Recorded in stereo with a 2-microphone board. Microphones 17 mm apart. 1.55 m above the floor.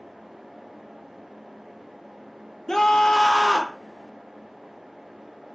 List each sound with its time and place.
2.7 s a scream: 35° left (ahead or behind), 1.2 m